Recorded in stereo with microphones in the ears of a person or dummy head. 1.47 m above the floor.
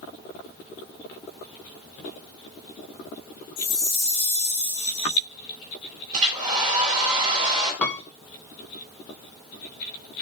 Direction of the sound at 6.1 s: 35° right (ahead or behind).